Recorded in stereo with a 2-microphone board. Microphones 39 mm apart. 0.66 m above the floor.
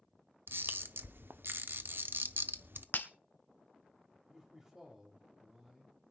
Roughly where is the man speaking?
Centre.